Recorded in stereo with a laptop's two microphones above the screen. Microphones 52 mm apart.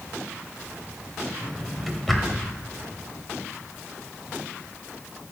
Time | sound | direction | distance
1.4 | a drawer | centre (ahead or behind) | 1.2 m